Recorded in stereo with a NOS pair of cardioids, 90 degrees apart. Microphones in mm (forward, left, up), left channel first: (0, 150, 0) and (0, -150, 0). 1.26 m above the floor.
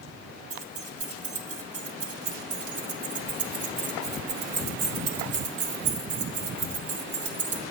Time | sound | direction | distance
0.5 | keys jangling | 55° right | 1.5 m